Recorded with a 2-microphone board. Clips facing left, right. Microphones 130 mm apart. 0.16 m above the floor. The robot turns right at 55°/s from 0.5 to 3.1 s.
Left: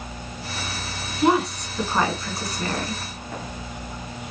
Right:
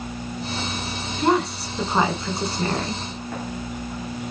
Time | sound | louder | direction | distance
1.2 | a woman speaking | left 1 dB | 170° left | 1.3 m